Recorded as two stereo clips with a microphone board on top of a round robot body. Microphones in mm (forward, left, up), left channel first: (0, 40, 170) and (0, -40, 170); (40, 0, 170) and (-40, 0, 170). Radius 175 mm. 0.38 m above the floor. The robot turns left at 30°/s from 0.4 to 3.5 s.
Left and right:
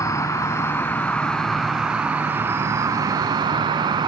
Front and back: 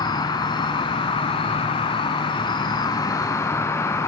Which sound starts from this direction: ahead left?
An insect, at 0.0 s.